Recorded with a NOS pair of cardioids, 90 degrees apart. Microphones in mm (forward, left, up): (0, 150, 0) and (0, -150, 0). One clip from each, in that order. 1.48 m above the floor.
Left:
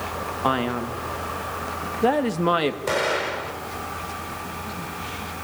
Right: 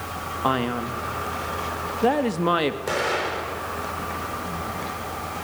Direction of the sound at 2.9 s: 25° left.